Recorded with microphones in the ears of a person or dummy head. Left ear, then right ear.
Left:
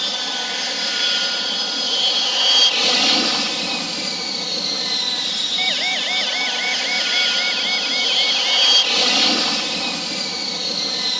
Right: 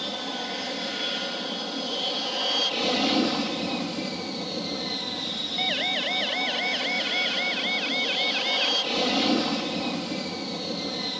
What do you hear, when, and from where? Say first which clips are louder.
0.0 s an aircraft: left 9 dB; 60° left (ahead or behind)
5.6 s a siren: left 3 dB; 30° left (ahead or behind); by 8.7 s 25° left (ahead or behind)